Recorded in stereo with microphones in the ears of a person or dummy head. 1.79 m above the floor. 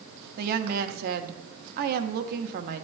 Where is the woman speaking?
55° right (ahead or behind), 0.8 m.